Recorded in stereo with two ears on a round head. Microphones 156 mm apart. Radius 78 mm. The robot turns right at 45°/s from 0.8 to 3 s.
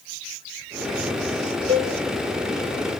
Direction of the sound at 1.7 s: 35° right (ahead or behind).